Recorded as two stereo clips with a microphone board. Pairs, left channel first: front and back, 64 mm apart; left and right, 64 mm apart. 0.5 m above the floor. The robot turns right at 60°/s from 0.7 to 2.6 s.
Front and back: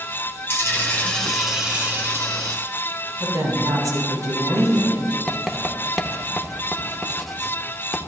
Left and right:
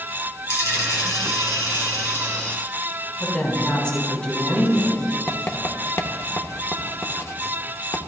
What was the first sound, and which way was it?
A dropped coin, 50° left.